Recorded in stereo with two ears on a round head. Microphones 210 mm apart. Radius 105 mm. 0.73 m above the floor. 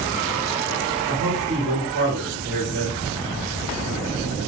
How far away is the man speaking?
About 1.8 m.